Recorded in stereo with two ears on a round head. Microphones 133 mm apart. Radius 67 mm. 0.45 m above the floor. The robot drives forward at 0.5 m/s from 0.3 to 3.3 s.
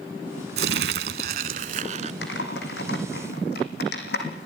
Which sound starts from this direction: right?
Crumpling, at 0.6 s.